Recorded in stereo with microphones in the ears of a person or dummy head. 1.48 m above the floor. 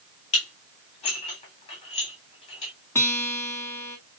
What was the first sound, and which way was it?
Dishes clattering, 35° left (ahead or behind).